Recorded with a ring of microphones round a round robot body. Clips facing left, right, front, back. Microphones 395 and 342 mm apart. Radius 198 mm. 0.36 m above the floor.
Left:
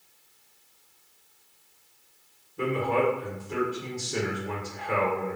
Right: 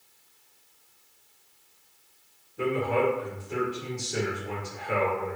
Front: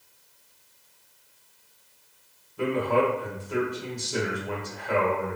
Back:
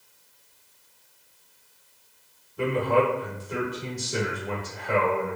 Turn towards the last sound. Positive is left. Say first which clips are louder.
# even, back 1 dB
turn(degrees=165)